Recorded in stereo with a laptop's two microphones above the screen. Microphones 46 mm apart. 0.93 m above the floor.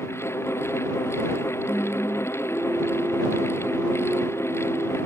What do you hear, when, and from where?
0.0 s a fan: 90° left
1.7 s singing: 30° right (ahead or behind)